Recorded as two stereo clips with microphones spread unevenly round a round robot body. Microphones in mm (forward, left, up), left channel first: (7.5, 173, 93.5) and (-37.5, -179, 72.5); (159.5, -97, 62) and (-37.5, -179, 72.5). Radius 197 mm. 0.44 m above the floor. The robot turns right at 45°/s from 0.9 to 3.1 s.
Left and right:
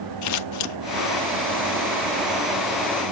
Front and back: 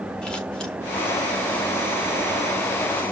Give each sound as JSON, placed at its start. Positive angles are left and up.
{"t": 0.2, "sound": "scissors", "azimuth_deg": 105, "distance_m": 0.8}